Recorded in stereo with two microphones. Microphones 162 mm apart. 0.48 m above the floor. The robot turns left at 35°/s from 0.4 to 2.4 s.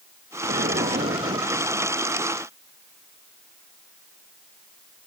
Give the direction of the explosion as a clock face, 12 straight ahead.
3 o'clock.